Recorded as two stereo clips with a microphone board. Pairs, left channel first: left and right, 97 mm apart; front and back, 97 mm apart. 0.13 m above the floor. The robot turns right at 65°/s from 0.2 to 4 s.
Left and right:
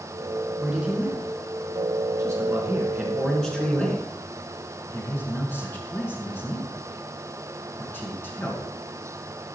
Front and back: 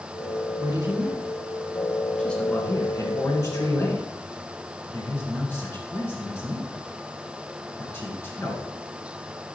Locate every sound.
0.6 s a man speaking: straight behind, 2.0 m; by 8.7 s 45° left, 2.0 m